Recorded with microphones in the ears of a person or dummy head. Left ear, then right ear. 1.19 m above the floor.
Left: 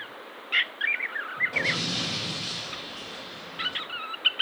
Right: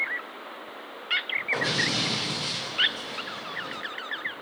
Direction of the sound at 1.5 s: 50° right (ahead or behind).